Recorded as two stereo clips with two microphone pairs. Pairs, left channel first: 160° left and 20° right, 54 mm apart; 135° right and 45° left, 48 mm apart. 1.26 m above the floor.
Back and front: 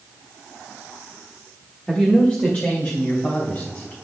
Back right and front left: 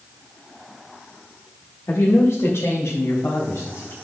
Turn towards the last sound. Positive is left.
turn(degrees=-155)